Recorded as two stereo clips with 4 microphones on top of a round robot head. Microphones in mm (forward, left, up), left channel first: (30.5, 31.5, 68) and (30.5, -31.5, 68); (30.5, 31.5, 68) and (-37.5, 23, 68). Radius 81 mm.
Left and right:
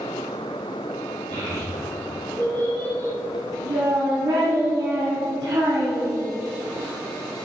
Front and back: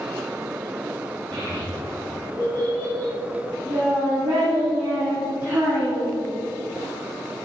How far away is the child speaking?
About 5.5 m.